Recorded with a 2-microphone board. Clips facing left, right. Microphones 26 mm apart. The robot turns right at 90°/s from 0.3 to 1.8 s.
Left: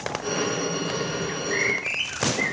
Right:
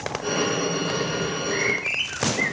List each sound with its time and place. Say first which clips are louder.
1.3 s a bird: left 2 dB; 145° left, 2 m; by 2.5 s 170° right, 2 m